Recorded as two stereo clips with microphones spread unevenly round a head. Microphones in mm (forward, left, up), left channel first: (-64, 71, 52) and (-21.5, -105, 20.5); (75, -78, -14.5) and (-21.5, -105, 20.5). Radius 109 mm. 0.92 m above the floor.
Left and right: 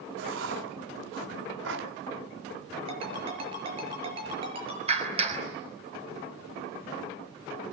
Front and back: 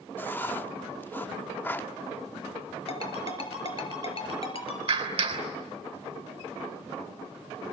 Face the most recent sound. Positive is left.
turn(degrees=-135)